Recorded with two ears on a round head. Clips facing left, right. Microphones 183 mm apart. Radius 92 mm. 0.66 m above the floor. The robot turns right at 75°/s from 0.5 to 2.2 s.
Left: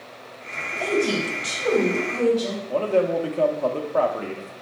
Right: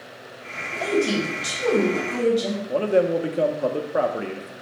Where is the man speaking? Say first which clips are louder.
Right 1 dB; 15° right (ahead or behind), 0.7 m.